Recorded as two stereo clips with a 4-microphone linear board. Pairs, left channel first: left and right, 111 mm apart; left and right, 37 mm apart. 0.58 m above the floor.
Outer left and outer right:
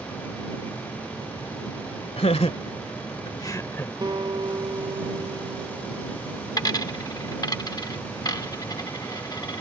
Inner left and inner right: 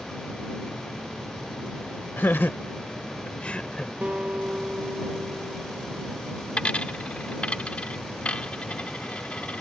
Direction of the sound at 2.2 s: 70° left (ahead or behind).